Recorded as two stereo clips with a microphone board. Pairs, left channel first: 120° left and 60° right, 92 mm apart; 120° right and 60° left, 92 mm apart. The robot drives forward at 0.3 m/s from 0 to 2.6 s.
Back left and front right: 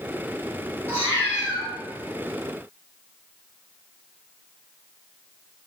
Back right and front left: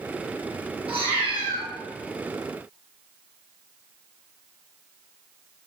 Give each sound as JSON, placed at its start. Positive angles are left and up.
{"t": 0.9, "sound": "a cat meowing", "azimuth_deg": 55, "distance_m": 1.7}